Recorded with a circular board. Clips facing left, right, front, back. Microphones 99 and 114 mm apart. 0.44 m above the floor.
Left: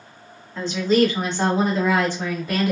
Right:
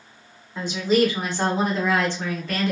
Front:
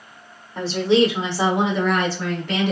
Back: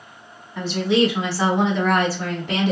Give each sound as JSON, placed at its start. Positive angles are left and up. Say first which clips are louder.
{"t": 0.6, "sound": "a woman speaking", "louder": "left 2 dB, front 2 dB", "azimuth_deg": -20, "distance_m": 1.2}